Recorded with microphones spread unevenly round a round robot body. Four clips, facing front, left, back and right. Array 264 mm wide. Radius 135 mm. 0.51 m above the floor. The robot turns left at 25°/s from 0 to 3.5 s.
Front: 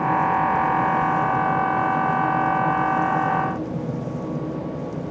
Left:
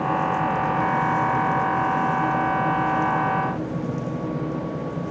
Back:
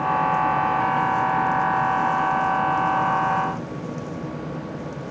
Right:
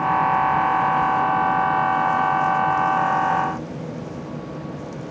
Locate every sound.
Only background noise.